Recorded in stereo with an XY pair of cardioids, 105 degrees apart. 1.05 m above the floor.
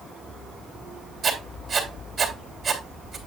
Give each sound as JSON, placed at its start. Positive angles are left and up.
{"t": 1.2, "sound": "writing", "azimuth_deg": -35, "distance_m": 3.0}